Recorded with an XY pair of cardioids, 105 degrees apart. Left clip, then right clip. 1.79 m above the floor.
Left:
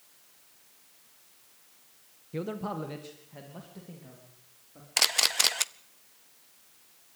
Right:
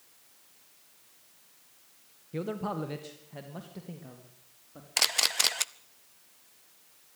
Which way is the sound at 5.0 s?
5° left.